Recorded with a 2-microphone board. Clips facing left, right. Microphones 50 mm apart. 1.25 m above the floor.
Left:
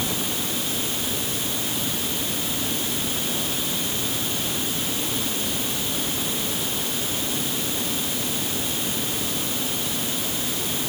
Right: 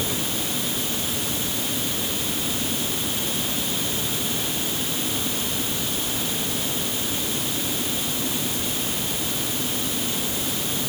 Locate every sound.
Only background noise.